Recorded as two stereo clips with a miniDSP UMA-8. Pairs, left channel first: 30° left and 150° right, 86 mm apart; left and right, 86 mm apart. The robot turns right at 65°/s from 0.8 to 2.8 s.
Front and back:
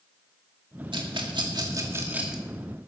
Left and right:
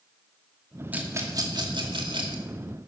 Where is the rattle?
160° right, 2 m; by 2.4 s 60° right, 2 m.